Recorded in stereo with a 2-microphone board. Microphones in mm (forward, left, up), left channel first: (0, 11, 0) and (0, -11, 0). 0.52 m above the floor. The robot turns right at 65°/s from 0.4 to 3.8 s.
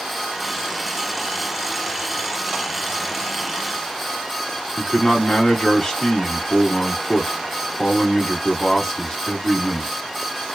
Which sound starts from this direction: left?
A man speaking, at 4.8 s.